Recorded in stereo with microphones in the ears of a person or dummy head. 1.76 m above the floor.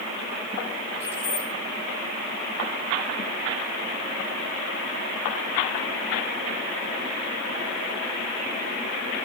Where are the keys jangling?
10° right (ahead or behind), 3 m.